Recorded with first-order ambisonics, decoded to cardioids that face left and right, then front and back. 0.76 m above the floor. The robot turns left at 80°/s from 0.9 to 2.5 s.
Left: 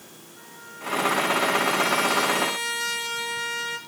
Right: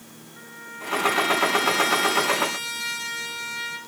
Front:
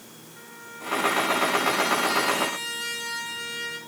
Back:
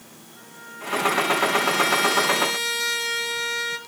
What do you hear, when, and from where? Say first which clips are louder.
0.4 s a trumpet: right 4 dB, back 2 dB; 55° right, 1.2 m; by 3.8 s 175° left, 1.2 m